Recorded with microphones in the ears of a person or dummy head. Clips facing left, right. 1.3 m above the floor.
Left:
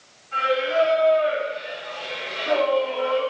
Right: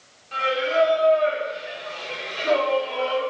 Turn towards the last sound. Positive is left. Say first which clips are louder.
# left 1 dB
turn(degrees=-70)  # may be behind; listen again after turning